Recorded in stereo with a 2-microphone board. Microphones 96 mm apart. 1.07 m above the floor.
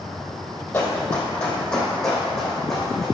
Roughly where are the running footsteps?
Centre.